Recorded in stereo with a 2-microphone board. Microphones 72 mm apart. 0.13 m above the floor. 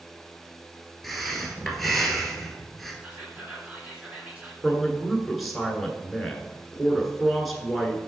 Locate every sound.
1.0 s breathing: centre (ahead or behind), 1.2 m
3.0 s whispering: 20° right (ahead or behind), 1.8 m
4.6 s a man speaking: centre (ahead or behind), 1.4 m